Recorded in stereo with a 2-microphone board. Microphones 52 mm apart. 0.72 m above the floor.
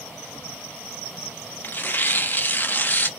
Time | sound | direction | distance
1.6 | tearing paper | 40° left (ahead or behind) | 0.5 m